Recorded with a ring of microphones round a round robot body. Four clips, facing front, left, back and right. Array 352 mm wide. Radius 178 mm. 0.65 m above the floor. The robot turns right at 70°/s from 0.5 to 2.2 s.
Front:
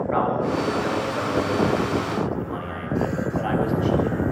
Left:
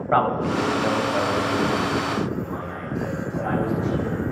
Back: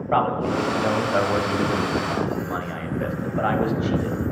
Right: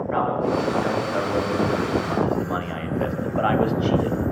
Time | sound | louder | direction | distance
0.1 | a man speaking | left 2 dB, back 2 dB | 125° left | 3.5 m